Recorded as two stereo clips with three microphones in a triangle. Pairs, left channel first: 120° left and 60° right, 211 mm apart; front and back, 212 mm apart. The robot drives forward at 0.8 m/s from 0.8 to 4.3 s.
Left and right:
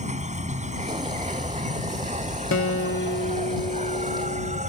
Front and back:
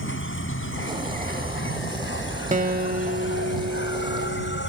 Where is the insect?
5° right; by 4.7 s 10° right.